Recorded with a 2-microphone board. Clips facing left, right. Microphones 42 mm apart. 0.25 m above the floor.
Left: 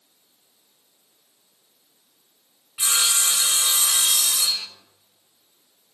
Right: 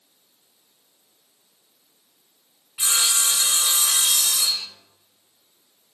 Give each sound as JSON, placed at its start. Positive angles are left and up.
{"t": 2.8, "sound": "sawing", "side_deg": 15, "distance_m": 0.5}